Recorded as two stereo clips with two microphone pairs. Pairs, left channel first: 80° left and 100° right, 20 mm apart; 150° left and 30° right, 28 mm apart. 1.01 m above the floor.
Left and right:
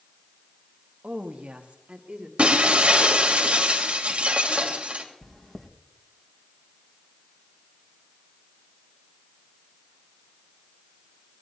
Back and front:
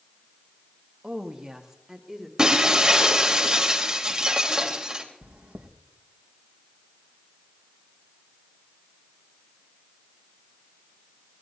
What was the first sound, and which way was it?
A woman speaking, 90° right.